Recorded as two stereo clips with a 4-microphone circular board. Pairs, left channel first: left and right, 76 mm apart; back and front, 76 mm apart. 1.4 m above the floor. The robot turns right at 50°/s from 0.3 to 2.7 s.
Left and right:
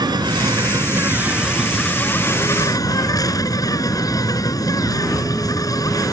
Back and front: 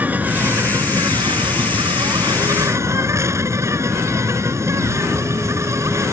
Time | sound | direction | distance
0.0 | an insect | 70° right | ?